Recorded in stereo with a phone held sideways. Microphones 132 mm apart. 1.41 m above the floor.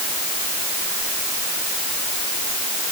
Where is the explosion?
No explosion in this recording.